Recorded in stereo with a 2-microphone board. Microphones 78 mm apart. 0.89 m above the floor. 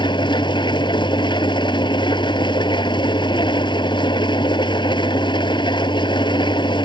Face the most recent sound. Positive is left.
turn(degrees=80)